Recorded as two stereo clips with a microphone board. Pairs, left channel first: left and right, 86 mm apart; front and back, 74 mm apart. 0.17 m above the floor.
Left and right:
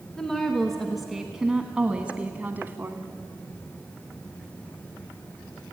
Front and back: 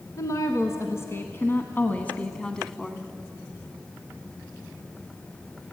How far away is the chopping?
No chopping in this recording.